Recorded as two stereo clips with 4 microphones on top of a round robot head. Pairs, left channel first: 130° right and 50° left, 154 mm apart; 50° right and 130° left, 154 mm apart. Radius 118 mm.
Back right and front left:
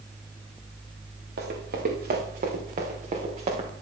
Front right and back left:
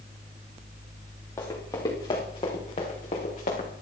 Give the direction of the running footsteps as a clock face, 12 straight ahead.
11 o'clock.